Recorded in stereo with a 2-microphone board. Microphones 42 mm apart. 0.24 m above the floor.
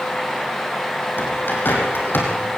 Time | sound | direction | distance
1.2 | a bird | 55° left (ahead or behind) | 5 m